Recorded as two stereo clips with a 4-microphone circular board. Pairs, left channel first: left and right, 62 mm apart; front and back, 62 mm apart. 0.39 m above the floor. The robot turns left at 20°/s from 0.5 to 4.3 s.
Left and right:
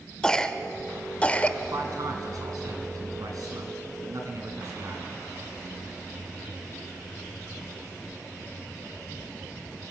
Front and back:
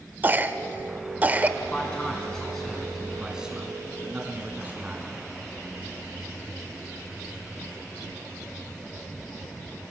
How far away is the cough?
About 1.0 m.